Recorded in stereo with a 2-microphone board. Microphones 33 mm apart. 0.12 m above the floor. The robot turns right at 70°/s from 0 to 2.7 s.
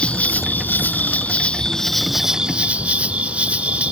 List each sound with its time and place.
0.0 s an insect: 40° left; by 3.9 s 130° right